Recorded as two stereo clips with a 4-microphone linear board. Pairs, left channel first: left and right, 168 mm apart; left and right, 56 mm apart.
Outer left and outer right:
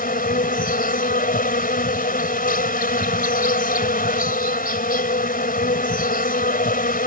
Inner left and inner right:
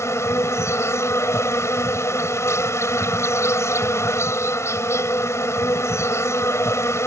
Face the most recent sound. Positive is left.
turn(degrees=55)  # may be behind; listen again after turning